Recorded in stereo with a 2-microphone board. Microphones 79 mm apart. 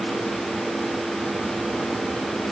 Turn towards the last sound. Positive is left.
No sound to turn to.